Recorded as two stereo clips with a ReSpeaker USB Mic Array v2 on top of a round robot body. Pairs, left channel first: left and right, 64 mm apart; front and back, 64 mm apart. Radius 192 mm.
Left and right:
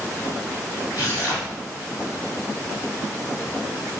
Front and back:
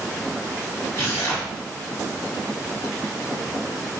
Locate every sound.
0.9 s tearing paper: 60° left, 1.4 m